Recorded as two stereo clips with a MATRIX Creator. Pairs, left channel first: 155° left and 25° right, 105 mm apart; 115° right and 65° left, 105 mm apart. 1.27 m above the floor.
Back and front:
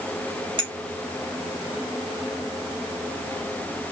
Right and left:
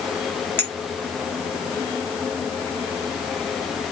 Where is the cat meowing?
No cat meowing in this recording.